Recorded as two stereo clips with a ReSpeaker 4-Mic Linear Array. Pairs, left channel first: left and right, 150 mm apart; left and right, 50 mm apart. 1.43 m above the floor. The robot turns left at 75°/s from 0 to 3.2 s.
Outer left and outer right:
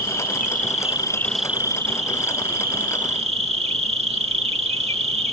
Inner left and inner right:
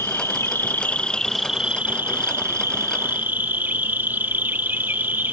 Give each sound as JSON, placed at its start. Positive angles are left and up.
{"t": 0.0, "sound": "an insect", "azimuth_deg": 105}